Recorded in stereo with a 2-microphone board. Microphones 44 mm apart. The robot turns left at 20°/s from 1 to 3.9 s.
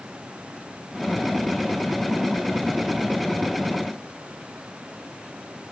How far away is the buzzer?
No buzzer in this recording.